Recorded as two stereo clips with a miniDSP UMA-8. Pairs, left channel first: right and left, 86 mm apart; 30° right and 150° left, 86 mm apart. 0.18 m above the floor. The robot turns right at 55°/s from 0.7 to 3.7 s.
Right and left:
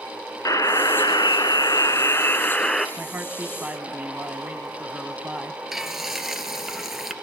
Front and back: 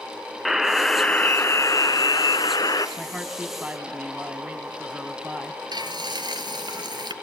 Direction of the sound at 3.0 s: 80° left.